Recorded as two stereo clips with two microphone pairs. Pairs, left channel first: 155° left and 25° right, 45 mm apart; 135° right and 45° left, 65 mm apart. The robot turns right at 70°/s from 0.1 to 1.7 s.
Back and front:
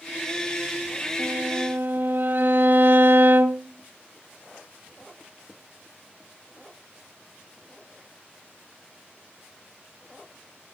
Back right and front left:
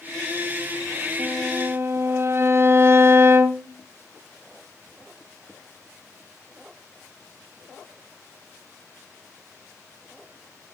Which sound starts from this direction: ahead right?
A violin, at 1.2 s.